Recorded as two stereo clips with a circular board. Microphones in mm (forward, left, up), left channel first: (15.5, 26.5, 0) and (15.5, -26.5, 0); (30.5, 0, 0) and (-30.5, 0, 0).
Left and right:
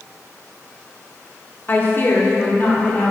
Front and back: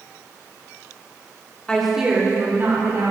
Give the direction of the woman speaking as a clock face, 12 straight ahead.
10 o'clock.